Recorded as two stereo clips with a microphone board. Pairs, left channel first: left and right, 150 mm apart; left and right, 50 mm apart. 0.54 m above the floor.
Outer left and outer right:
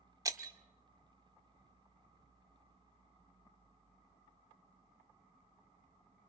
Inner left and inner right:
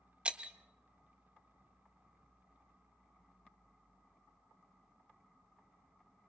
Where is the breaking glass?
25° right (ahead or behind), 0.8 m.